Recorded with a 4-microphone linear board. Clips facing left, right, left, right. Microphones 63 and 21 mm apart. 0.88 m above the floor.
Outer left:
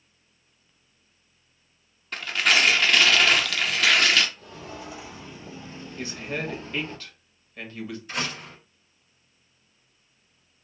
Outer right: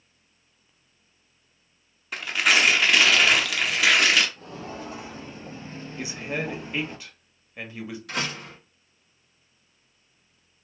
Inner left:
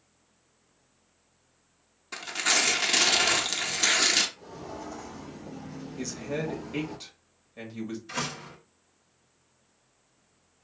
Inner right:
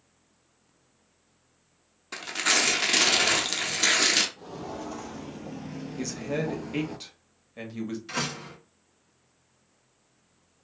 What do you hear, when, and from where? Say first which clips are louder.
2.1 s tearing paper: outer right 1 dB, inner right 1 dB; 10° right (ahead or behind), 0.6 m
4.4 s footsteps: outer right 3 dB, inner right 3 dB; 45° right (ahead or behind), 1.6 m; by 7.0 s 10° right (ahead or behind), 1.0 m
6.0 s a man speaking: outer right 1 dB, inner right 2 dB; 15° right (ahead or behind), 0.9 m
8.1 s a door slam: outer right 2 dB, inner right 2 dB; 80° right, 1.7 m